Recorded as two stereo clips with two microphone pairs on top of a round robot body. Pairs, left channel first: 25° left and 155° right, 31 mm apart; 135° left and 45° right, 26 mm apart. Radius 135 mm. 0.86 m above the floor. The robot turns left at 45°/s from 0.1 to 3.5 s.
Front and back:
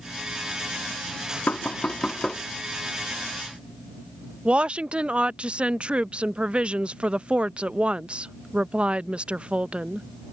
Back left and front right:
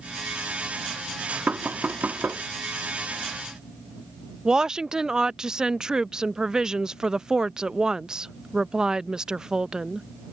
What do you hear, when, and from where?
1.5 s knocking: 15° right; by 2.4 s 55° right
4.5 s a woman speaking: 100° right